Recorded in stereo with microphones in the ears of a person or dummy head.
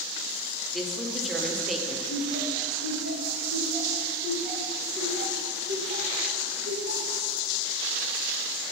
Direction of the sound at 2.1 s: 50° right (ahead or behind).